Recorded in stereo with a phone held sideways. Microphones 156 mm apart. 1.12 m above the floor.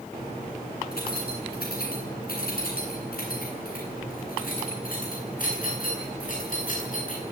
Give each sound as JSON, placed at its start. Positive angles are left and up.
{"t": 0.9, "sound": "keys jangling", "side_deg": 80, "distance_m": 9.5}